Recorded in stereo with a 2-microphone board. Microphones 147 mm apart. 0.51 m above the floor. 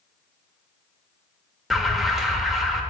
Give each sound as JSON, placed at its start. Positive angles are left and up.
{"t": 1.7, "sound": "an alarm", "side_deg": 0, "distance_m": 1.0}